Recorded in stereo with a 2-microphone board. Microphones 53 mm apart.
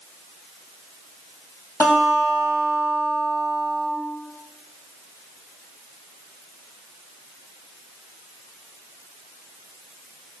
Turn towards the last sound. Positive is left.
turn(degrees=70)  # may be behind; listen again after turning